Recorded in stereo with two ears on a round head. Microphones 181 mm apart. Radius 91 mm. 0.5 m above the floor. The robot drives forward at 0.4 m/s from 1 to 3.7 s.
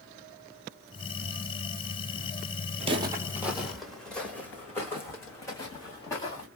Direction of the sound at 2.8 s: 30° right (ahead or behind).